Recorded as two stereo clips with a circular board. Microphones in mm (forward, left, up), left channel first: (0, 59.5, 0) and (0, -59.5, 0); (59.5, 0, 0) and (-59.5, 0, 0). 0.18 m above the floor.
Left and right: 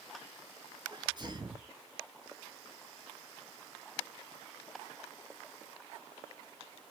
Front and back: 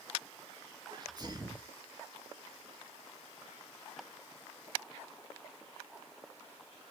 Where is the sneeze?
135° right, 2.5 m.